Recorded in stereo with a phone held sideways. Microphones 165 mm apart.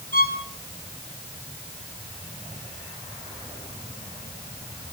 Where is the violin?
60° left (ahead or behind), 5 m.